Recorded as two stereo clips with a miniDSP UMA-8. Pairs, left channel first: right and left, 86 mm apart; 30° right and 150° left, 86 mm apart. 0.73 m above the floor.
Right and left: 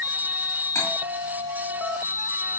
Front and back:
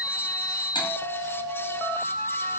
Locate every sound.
0.8 s cutlery clinking: 30° right, 2.5 m